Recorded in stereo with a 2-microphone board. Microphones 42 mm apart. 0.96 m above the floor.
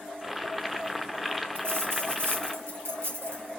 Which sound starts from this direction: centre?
Boiling, at 0.2 s.